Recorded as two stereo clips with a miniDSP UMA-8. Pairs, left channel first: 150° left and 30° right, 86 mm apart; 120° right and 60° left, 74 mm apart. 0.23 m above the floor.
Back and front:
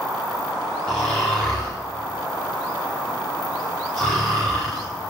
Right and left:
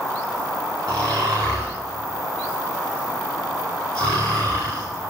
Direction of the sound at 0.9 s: 70° left.